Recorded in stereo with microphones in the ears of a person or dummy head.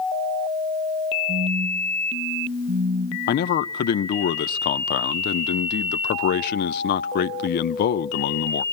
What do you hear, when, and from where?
1.3 s a phone buzzing: 55° right (ahead or behind), 2.5 m
3.3 s a man speaking: 50° left (ahead or behind), 0.7 m